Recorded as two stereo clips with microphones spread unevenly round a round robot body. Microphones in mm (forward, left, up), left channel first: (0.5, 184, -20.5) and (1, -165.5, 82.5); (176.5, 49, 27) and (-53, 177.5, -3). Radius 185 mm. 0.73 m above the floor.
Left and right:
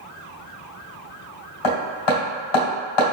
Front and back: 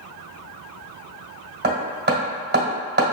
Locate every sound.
1.6 s hammering: 100° left, 1.6 m